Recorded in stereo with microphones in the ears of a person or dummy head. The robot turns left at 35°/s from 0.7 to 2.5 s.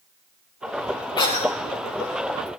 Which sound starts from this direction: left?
A cough, at 1.2 s.